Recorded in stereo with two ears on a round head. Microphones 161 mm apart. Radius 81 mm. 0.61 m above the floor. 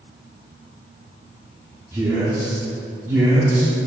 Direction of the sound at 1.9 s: 15° right (ahead or behind).